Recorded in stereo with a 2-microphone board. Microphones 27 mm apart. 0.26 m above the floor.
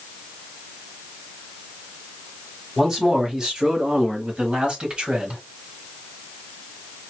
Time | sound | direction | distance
2.8 | a man speaking | 20° right (ahead or behind) | 1.6 m